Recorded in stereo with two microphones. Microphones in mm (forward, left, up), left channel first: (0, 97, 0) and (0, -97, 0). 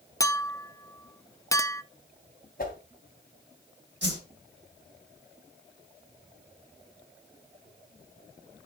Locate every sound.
0.2 s a clink: 15° left (ahead or behind), 0.7 m
2.6 s a whoosh: 50° left (ahead or behind), 3 m
4.0 s a whoosh: 70° right (ahead or behind), 2.5 m